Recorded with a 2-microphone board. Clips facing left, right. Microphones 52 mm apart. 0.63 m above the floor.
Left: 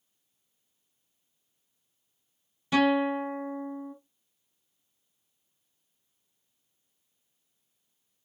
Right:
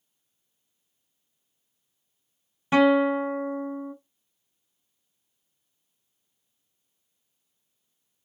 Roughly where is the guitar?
Right.